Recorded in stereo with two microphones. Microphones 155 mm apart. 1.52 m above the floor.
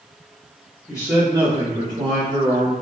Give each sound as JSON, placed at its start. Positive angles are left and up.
{"t": 0.9, "sound": "a man speaking", "side_deg": 25, "distance_m": 0.6}